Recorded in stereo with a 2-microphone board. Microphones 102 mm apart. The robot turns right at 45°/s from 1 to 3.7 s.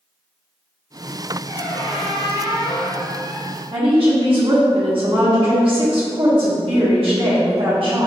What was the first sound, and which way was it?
A squeak, 55° left.